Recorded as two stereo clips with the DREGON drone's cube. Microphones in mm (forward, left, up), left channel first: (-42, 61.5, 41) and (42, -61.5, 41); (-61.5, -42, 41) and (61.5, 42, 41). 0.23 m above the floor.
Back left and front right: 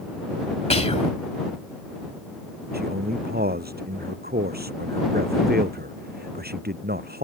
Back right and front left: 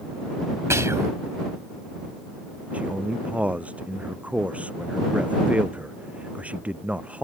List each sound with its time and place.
0.7 s whispering: 100° left
2.7 s a man speaking: 50° right